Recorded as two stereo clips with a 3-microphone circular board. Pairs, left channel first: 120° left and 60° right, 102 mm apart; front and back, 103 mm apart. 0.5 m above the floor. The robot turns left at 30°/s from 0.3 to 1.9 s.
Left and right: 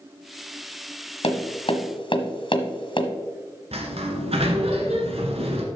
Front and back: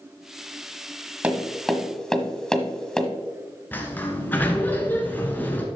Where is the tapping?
105° left, 1.2 m; by 3.1 s 85° left, 1.2 m.